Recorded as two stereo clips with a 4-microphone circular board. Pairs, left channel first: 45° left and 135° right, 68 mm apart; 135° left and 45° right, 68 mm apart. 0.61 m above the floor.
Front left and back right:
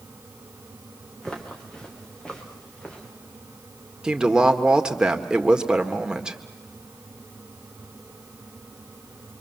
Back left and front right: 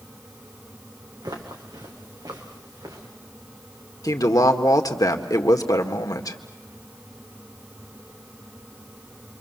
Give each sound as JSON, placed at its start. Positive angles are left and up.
{"t": 1.2, "sound": "footsteps", "azimuth_deg": -35, "distance_m": 3.0}
{"t": 4.0, "sound": "a woman speaking", "azimuth_deg": 150, "distance_m": 1.7}